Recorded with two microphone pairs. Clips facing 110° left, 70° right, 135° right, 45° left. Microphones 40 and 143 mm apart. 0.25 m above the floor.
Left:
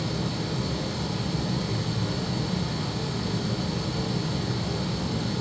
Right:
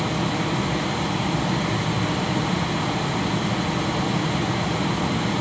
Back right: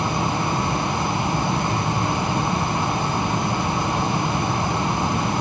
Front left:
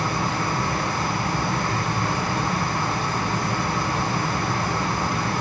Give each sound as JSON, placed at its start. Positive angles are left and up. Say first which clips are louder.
{"t": 0.0, "sound": "running water", "louder": "right 6 dB, back right 2 dB", "azimuth_deg": -70, "distance_m": 1.4}